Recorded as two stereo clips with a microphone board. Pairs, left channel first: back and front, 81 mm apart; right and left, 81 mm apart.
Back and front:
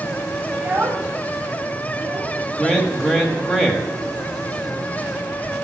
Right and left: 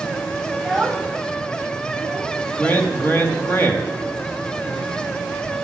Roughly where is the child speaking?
Ahead right.